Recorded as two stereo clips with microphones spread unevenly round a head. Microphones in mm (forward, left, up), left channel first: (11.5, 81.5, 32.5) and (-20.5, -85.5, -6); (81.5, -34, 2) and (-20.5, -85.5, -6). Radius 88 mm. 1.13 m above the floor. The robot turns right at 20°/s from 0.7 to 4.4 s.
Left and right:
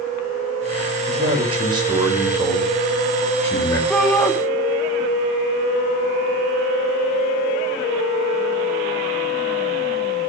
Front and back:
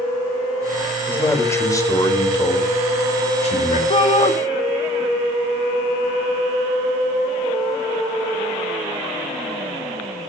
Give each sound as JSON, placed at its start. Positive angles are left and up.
{"t": 1.1, "sound": "a man speaking", "azimuth_deg": -45, "distance_m": 4.5}
{"t": 3.9, "sound": "a shout", "azimuth_deg": -10, "distance_m": 2.5}